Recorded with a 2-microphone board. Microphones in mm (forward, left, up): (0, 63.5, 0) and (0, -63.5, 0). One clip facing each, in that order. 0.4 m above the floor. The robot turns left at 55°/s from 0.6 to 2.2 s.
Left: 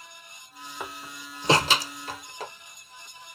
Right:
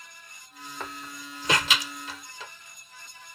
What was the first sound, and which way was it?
A door slam, 10° left (ahead or behind).